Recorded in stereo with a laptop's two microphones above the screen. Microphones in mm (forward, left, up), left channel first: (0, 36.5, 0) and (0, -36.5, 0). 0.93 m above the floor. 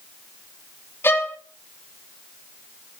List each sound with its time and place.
1.0 s a violin: 30° left (ahead or behind), 1.6 m